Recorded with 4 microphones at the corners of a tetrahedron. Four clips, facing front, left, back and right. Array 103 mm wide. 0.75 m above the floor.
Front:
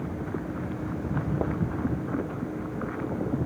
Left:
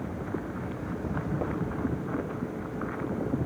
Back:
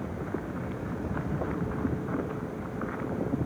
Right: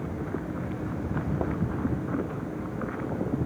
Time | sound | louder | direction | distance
1.0 | footsteps | right 1 dB, front 4 dB | 55° right | 0.8 m